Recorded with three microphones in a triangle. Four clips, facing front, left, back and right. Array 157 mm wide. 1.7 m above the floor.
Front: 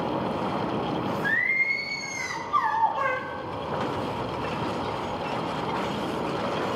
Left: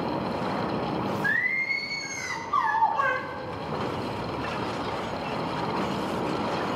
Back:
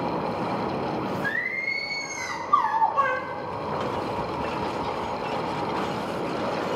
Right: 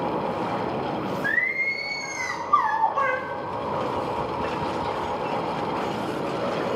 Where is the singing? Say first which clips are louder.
Right 2 dB, front 2 dB; 145° right, 5 m.